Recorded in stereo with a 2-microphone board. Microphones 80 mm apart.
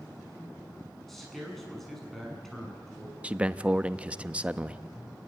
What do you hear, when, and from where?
1.1 s a man speaking: centre (ahead or behind), 7 m
3.2 s a man speaking: 15° right (ahead or behind), 0.7 m